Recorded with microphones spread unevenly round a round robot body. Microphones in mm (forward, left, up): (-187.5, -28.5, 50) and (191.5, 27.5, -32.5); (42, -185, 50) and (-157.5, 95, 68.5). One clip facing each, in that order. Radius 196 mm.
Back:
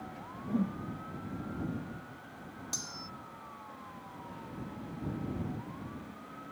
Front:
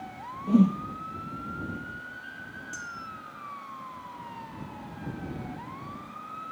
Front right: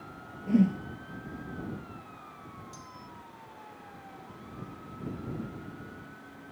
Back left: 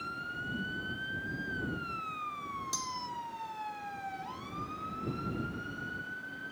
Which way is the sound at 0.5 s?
25° right.